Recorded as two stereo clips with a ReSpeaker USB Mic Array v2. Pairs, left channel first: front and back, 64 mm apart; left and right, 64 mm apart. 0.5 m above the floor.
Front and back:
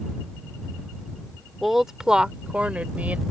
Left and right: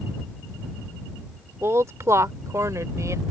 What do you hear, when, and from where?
1.6 s a woman speaking: 95° right; by 3.2 s 115° right